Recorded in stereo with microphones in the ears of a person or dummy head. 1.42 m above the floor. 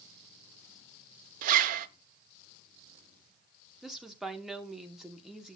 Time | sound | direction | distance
1.4 | a zipper | 40° right (ahead or behind) | 0.7 m
3.8 | a woman speaking | centre (ahead or behind) | 1.0 m